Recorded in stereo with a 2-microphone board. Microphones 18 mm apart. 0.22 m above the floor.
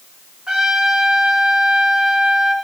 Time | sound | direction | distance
0.5 | a trumpet | 45° right (ahead or behind) | 2.5 m